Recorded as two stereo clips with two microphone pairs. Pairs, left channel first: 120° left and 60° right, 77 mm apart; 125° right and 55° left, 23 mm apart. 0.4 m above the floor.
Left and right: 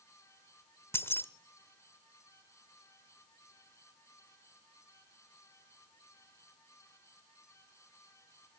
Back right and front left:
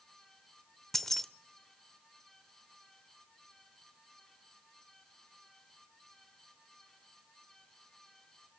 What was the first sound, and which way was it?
Keys jangling, 160° left.